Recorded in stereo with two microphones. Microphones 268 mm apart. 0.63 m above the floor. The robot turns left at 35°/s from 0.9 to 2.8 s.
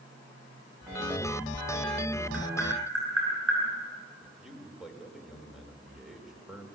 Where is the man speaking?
Centre (ahead or behind), 2.5 m.